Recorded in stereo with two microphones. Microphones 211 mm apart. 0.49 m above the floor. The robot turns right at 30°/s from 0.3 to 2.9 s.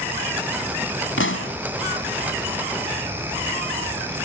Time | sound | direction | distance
1.2 | a pop | 75° left (ahead or behind) | ?